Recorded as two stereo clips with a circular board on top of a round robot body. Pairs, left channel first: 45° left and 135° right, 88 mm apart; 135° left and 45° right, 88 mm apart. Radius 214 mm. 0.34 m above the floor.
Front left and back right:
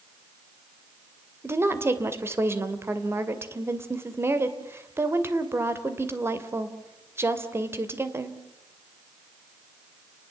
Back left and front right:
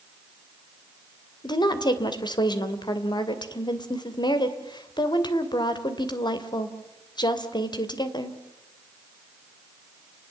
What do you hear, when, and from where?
1.4 s a woman speaking: 165° left, 2.5 m